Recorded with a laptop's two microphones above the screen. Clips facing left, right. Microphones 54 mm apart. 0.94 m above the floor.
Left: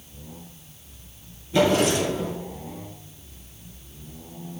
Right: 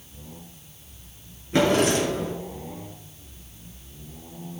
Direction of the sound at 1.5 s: 55° right (ahead or behind).